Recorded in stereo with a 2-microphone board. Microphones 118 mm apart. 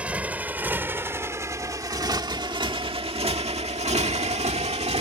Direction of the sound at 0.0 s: 10° right (ahead or behind).